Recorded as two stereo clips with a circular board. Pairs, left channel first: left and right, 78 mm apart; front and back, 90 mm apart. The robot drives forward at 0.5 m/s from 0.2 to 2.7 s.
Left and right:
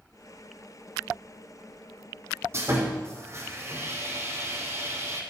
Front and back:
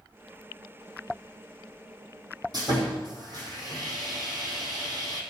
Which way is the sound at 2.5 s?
145° right.